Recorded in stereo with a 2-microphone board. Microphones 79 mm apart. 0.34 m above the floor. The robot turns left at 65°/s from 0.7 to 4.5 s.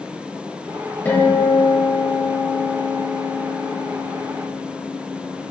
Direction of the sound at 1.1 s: 30° left.